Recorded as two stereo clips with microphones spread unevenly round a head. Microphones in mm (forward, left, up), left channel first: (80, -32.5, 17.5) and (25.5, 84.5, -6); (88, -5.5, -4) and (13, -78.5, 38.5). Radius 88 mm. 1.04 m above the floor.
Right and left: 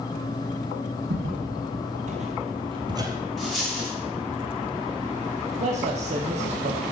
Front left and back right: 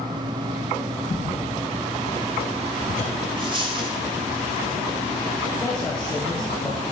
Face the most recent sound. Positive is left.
turn(degrees=110)